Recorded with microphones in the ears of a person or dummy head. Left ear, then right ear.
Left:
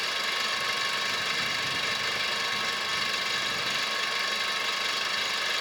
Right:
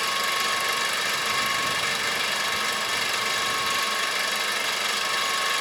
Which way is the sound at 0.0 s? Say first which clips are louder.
Right 4 dB; 10° right (ahead or behind).